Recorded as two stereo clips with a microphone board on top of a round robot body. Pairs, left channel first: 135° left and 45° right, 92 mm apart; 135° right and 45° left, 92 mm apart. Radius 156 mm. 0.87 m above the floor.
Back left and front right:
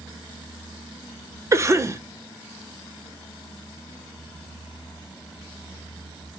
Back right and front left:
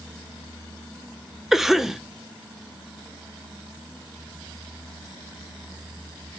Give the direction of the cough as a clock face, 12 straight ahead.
1 o'clock.